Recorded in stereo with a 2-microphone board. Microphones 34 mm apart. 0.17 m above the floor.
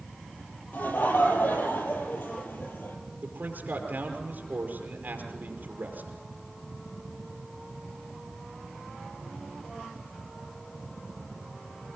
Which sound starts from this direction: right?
A man speaking, at 3.2 s.